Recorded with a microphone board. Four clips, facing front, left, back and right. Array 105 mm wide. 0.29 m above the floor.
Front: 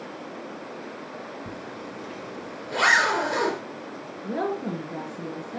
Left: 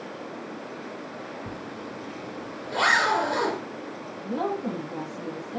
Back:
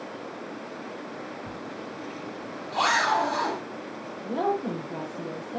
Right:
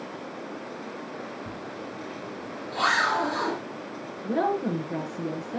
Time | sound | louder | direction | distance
1.5 | a zipper | even, even | 20° left | 3.5 m
4.2 | a woman speaking | right 3 dB, back 1 dB | 60° right | 5 m